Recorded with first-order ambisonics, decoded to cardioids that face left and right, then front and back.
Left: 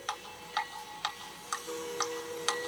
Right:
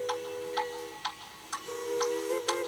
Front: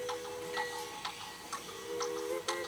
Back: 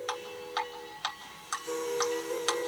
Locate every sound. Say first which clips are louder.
0.1 s dripping: right 3 dB, back 3 dB; 135° left, 1.7 m